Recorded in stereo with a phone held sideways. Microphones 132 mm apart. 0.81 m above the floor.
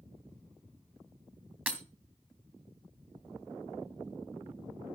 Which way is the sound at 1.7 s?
10° right (ahead or behind).